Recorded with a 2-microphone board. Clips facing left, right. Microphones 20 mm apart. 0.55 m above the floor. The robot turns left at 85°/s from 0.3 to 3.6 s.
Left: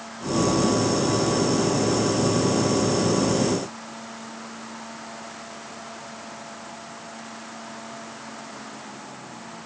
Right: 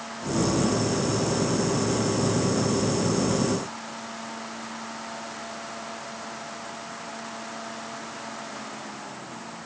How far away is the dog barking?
No dog barking in this recording.